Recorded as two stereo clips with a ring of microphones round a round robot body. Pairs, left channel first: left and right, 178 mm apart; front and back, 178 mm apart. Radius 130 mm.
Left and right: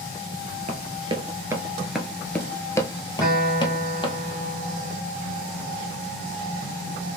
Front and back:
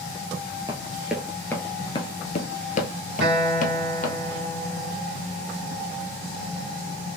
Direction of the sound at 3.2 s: 175° left.